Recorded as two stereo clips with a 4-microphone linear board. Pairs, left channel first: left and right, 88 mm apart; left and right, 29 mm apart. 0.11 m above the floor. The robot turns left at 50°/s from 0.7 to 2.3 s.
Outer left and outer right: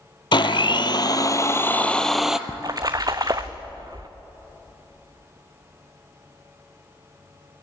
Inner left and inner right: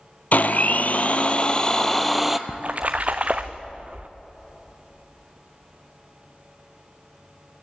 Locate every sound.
0.3 s a blender: 75° left, 1.0 m; by 2.4 s 5° right, 1.0 m
2.5 s a splash: 45° right (ahead or behind), 1.4 m